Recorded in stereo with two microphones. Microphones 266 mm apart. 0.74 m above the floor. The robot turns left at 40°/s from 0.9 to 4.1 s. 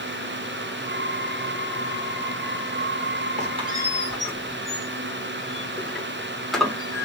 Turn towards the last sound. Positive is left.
turn(degrees=0)  # may be behind; listen again after turning